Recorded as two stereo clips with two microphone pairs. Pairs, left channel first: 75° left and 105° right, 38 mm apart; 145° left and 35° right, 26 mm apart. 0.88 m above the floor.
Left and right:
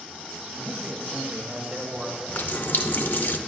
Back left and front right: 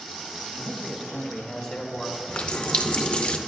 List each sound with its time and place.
0.6 s a man speaking: 150° right, 1.5 m
2.3 s a running tap: 100° left, 0.6 m